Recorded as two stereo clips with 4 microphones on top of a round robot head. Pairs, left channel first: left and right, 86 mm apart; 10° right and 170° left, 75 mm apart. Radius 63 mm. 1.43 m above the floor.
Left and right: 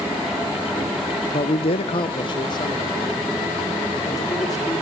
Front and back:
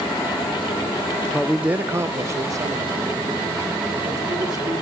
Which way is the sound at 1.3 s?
65° left.